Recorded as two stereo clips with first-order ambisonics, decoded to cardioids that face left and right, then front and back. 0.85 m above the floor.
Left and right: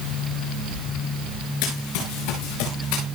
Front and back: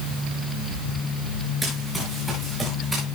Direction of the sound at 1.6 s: 95° left.